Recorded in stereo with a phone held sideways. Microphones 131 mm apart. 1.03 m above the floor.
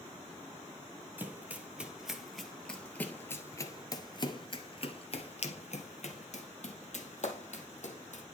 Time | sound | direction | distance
1.2 | running footsteps | 15° right (ahead or behind) | 1.9 m